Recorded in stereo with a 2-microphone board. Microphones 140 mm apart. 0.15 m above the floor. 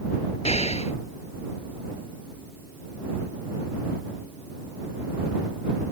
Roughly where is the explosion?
Left.